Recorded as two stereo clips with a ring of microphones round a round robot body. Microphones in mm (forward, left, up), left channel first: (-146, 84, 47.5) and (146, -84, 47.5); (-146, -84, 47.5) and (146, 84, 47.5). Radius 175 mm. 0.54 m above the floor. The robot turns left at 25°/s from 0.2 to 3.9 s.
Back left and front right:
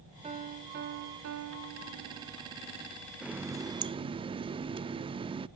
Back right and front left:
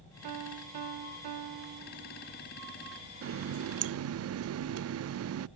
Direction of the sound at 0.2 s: 45° left.